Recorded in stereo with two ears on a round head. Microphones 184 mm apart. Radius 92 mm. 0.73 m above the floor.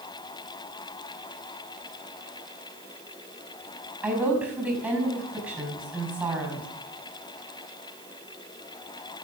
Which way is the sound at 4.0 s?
5° right (ahead or behind).